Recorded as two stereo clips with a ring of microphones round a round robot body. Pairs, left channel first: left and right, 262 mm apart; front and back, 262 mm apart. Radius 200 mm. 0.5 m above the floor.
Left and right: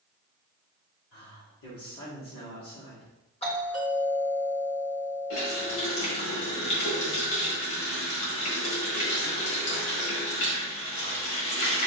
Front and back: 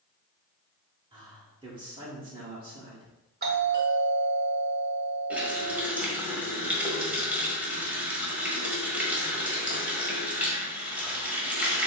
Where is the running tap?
95° left, 1.8 m.